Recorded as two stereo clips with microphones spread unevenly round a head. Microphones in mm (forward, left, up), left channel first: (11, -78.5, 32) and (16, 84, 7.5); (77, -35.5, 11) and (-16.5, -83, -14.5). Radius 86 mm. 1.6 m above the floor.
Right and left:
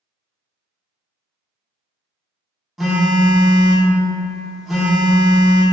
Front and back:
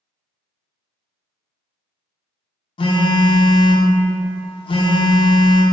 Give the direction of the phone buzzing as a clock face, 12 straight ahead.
12 o'clock.